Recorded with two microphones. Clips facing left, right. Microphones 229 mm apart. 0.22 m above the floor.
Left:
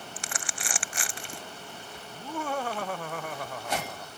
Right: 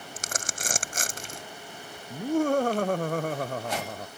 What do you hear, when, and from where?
0.2 s crumpling: 45° right (ahead or behind)
2.1 s laughter: 45° right (ahead or behind)